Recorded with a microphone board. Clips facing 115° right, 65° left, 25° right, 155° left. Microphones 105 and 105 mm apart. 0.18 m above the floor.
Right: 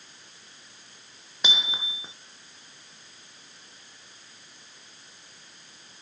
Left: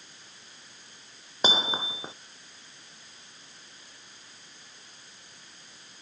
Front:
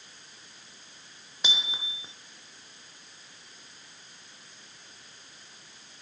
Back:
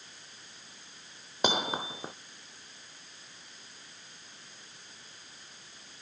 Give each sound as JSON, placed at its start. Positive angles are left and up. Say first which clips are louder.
{"t": 1.4, "sound": "hammering", "louder": "left 6 dB, back 9 dB", "azimuth_deg": 120}